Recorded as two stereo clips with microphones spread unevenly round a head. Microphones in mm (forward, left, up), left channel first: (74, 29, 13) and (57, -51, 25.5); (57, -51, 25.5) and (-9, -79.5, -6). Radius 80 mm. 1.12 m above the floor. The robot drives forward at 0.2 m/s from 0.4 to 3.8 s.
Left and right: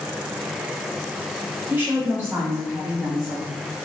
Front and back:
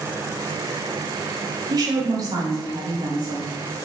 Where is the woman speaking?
175° right, 0.5 m; by 3.5 s straight behind, 0.9 m.